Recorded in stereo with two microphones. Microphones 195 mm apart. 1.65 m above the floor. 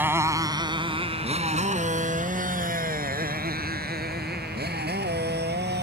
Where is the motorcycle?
10° right (ahead or behind); by 5.8 s 60° right (ahead or behind).